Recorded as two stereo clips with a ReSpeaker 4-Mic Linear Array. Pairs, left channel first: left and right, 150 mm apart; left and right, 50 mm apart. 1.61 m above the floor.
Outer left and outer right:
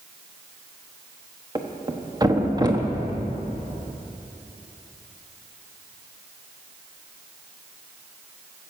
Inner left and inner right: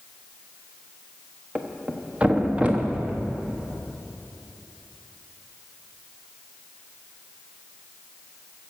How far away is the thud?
About 1.2 m.